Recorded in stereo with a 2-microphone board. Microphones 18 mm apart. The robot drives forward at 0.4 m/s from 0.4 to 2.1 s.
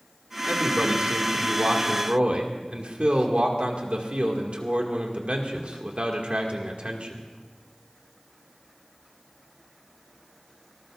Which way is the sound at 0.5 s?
75° right (ahead or behind).